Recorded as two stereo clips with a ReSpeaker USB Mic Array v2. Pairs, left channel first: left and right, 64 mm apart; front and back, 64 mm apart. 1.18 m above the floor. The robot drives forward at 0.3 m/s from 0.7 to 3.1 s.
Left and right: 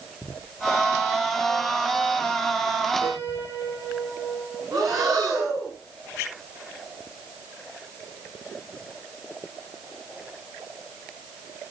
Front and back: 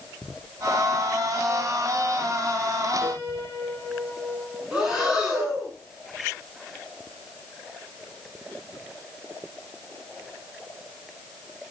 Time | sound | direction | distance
3.0 | a piano | 60° right | 4.5 m
4.7 | breathing | 100° right | 5 m